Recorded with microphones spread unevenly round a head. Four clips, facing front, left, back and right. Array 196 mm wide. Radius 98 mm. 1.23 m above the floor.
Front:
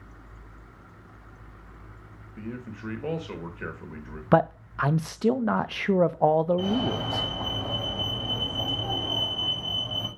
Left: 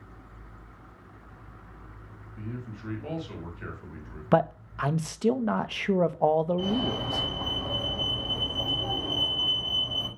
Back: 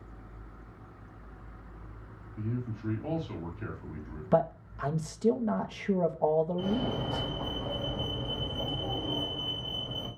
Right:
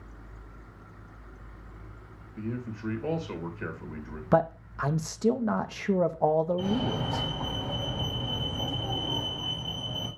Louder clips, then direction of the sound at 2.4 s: Right 5 dB, even; 30° right.